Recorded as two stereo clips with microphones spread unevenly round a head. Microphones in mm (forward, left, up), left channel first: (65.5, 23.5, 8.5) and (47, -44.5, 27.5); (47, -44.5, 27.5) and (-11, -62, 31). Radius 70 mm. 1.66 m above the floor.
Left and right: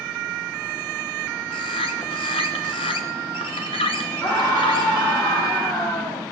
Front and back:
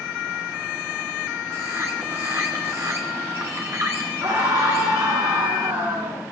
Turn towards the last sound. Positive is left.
turn(degrees=140)